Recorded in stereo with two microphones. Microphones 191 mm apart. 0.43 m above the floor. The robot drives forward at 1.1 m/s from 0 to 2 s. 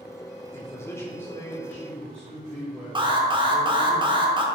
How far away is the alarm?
About 1.0 m.